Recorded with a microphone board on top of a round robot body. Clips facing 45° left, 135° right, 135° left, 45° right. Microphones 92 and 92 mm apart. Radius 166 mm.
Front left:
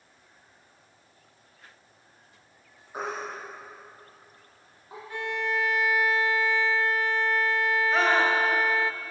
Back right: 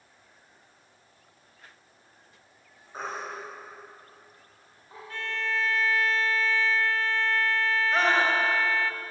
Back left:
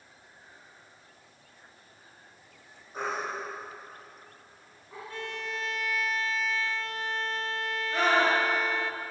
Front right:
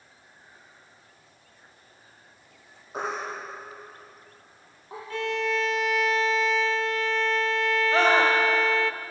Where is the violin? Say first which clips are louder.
Front left 2 dB, front right 10 dB; 30° right, 0.5 m.